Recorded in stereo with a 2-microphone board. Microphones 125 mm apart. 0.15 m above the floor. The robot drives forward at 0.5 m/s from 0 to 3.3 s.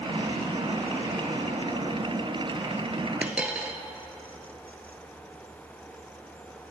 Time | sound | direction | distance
3.2 | a dropped coin | 10° right (ahead or behind) | 0.6 m